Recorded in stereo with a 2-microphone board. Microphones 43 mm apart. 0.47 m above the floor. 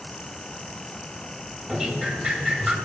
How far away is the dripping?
About 2.5 m.